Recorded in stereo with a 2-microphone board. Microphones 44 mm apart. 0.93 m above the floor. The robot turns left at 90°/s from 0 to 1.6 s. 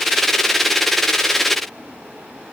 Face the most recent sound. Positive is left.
No sound to turn to.